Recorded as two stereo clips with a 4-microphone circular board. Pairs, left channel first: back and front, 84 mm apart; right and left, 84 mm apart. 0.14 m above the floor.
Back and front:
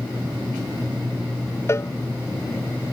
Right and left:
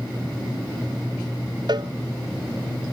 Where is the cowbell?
120° left.